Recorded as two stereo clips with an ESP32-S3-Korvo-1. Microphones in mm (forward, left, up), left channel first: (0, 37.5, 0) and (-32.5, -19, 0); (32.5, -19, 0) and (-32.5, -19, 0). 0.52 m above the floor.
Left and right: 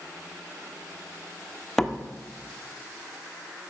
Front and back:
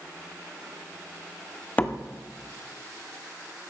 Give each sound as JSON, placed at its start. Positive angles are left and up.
{"t": 1.8, "sound": "a door slam", "azimuth_deg": -20, "distance_m": 0.8}